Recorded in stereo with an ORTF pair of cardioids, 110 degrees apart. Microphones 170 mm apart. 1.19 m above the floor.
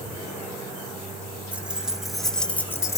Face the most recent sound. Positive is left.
turn(degrees=20)